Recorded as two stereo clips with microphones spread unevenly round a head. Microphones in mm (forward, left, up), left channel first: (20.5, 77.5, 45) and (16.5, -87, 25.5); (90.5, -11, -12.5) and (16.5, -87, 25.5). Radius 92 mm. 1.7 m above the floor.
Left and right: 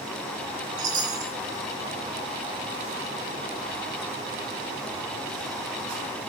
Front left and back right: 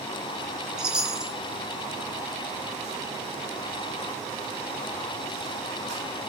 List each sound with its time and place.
0.8 s a chime: 95° right, 1.4 m